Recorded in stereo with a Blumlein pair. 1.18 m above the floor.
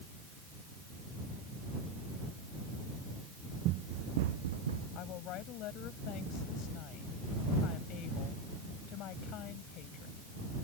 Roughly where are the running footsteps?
Ahead right.